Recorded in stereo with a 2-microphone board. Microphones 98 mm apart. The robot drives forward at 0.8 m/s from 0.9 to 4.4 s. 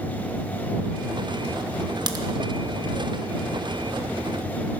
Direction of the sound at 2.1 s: 45° right (ahead or behind).